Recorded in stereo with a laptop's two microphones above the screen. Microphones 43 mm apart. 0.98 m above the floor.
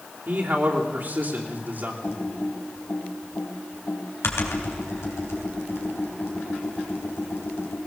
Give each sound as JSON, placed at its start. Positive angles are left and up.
{"t": 0.3, "sound": "a man speaking", "side_deg": -50, "distance_m": 3.0}
{"t": 2.0, "sound": "typing on a keyboard", "side_deg": 85, "distance_m": 3.5}